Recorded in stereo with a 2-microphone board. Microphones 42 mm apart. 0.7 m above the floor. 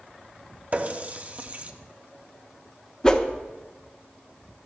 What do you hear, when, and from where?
0.7 s a running tap: 35° right (ahead or behind), 0.7 m
3.0 s a whoosh: 20° left (ahead or behind), 0.7 m